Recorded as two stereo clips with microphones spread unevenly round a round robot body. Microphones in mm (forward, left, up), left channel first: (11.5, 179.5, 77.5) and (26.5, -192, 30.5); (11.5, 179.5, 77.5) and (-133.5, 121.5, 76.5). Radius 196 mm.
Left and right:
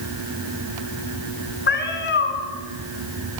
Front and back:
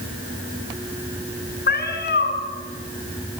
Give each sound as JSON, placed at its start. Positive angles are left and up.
{"t": 1.7, "sound": "a cat meowing", "azimuth_deg": 30, "distance_m": 5.0}